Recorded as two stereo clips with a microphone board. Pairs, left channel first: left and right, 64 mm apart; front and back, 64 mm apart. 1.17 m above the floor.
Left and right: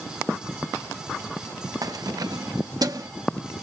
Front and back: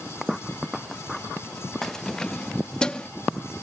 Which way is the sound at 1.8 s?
85° right.